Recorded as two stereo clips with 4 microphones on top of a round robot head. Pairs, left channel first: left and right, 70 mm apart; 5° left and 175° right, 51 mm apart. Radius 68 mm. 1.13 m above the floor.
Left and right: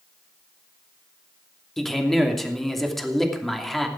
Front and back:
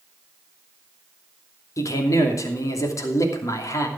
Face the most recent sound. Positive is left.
turn(degrees=5)